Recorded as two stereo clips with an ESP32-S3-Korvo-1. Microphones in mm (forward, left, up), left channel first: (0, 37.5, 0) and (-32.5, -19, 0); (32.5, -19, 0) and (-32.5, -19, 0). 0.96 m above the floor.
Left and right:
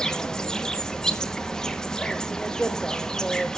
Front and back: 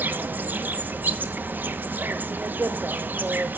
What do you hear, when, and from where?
0.0 s an insect: 135° left, 0.9 m